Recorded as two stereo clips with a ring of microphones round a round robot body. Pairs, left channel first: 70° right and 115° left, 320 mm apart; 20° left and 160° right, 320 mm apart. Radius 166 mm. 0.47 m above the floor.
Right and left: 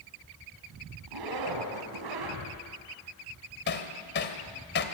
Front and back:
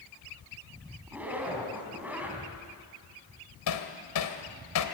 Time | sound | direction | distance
1.1 | a zipper | 115° left | 4 m
3.7 | hammering | 10° right | 2 m